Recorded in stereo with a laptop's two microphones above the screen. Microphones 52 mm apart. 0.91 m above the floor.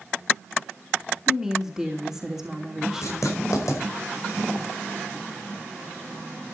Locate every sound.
1.3 s a woman speaking: 5° right (ahead or behind), 2.5 m
3.0 s writing: 80° left, 5 m